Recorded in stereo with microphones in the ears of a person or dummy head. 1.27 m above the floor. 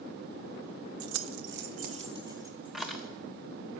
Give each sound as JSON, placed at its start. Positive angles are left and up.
{"t": 1.0, "sound": "keys jangling", "side_deg": -75, "distance_m": 0.7}